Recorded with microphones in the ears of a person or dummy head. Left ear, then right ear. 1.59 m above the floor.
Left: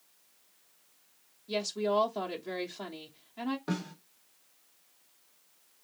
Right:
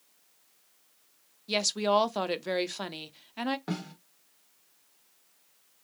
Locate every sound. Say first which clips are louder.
1.5 s a woman speaking: right 4 dB; 50° right (ahead or behind), 0.7 m
3.7 s a snare drum: left 1 dB; 15° right (ahead or behind), 1.8 m